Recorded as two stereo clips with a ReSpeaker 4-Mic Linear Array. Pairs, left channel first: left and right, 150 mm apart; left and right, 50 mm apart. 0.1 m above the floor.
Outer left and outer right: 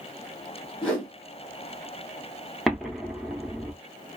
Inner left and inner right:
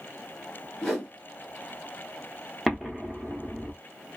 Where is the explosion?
Centre (ahead or behind), 0.7 m.